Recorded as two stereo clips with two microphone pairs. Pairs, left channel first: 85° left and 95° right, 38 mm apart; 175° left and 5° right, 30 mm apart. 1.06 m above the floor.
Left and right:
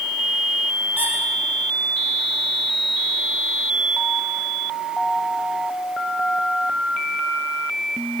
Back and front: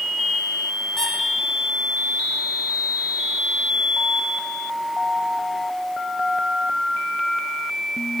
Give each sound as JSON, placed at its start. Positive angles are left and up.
{"t": 1.0, "sound": "a squeak", "azimuth_deg": -105, "distance_m": 8.0}